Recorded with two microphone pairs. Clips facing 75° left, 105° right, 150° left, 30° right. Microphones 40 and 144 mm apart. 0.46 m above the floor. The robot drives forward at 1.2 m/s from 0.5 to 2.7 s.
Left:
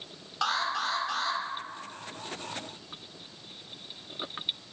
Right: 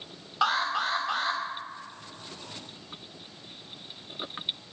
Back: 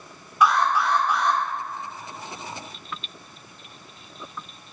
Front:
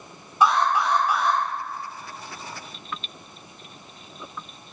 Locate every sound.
0.4 s an alarm: 45° right, 1.9 m; by 1.4 s 120° right, 1.8 m